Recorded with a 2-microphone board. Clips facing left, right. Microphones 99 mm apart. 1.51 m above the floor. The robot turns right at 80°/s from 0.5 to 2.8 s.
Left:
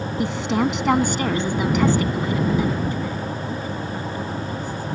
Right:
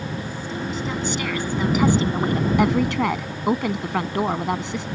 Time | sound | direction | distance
0.2 | a woman speaking | 85° left | ?